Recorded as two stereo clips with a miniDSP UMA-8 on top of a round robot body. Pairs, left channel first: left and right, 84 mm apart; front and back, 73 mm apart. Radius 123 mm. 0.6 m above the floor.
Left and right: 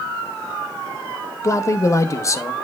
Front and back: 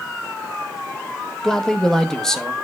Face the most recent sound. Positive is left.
turn(degrees=75)